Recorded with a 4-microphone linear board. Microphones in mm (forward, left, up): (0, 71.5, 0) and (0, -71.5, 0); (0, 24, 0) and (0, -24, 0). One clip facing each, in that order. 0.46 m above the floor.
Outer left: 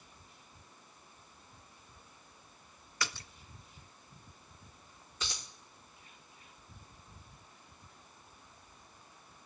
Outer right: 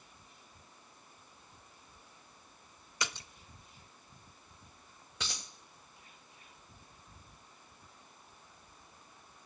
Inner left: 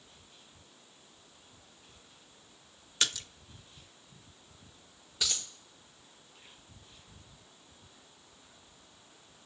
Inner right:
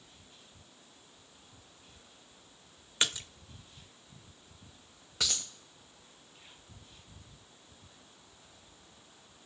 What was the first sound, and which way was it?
A splash, 20° right (ahead or behind).